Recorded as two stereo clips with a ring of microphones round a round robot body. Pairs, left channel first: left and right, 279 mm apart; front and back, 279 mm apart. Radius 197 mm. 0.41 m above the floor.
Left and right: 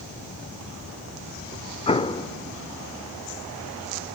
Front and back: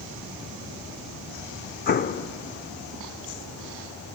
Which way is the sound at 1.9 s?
30° left.